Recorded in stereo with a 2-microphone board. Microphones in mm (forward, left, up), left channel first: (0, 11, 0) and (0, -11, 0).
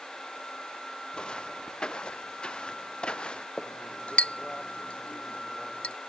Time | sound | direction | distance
1.1 | footsteps | 45° left (ahead or behind) | ?
3.6 | a clink | 70° left (ahead or behind) | ?